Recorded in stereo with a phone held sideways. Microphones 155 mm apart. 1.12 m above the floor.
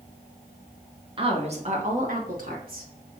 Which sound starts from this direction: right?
A woman speaking, at 1.2 s.